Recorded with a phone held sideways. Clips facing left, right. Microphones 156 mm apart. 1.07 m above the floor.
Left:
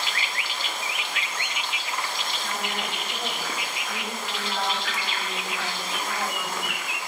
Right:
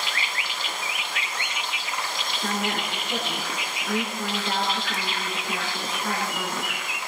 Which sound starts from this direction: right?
A woman speaking, at 2.4 s.